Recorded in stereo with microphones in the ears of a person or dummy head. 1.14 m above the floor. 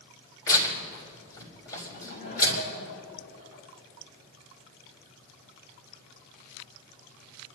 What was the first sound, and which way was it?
Tearing paper, 20° left (ahead or behind).